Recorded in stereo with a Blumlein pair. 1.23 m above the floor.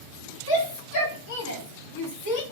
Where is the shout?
45° left, 2.5 m.